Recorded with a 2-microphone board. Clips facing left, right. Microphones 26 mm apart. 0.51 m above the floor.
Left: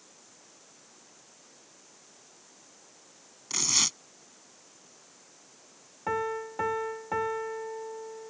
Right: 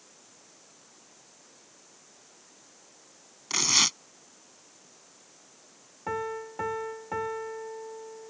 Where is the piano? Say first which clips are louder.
Left 2 dB; 10° left (ahead or behind).